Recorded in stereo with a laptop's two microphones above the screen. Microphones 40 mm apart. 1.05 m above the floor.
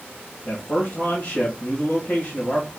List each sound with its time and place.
0.5 s a man speaking: 70° left (ahead or behind), 1.7 m